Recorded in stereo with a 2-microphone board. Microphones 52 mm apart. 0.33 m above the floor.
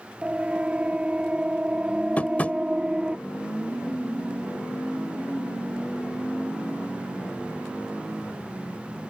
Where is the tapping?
25° left (ahead or behind).